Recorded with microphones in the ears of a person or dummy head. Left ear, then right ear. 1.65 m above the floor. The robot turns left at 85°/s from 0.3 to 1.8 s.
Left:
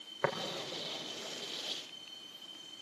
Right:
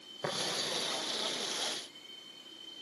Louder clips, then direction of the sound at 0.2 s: Left 3 dB; 55° left (ahead or behind).